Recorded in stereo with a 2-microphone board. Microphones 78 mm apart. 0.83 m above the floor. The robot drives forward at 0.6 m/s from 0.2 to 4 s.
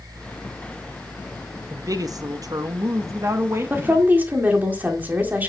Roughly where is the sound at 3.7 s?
Right.